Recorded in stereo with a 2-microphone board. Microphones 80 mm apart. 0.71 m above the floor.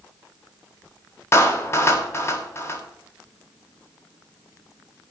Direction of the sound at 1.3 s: 30° left (ahead or behind).